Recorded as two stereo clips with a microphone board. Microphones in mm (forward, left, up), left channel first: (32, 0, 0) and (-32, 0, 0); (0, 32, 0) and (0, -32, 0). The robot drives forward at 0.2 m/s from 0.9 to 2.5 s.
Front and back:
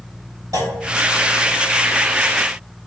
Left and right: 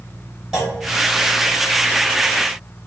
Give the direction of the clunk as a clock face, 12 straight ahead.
6 o'clock.